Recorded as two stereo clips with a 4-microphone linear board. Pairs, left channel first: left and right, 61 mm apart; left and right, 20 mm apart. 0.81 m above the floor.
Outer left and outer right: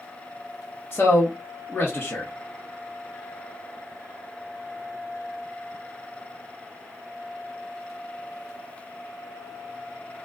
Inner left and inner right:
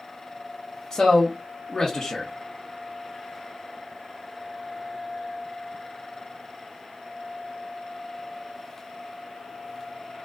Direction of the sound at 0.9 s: 35° left (ahead or behind).